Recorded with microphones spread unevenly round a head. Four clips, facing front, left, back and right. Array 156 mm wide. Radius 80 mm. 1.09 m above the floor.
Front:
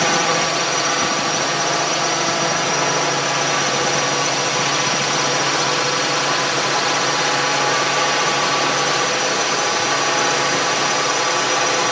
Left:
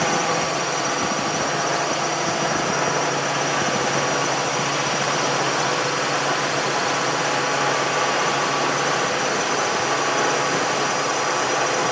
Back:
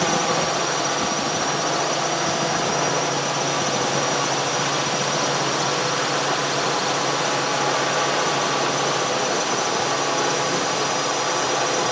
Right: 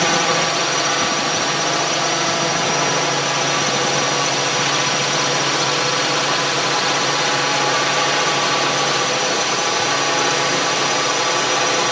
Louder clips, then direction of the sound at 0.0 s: Right 3 dB, front 3 dB; 45° right.